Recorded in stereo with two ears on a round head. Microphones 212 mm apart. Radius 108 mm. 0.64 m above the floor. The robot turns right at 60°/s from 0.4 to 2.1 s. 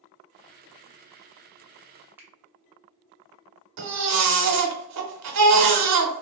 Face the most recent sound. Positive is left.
turn(degrees=-75)  # may be behind; listen again after turning